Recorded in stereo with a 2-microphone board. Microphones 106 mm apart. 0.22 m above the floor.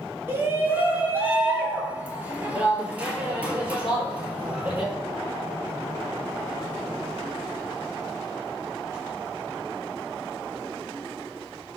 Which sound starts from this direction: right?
A shout, at 0.3 s.